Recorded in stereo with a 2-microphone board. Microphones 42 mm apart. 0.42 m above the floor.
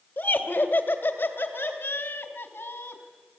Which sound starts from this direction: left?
Laughter, at 0.2 s.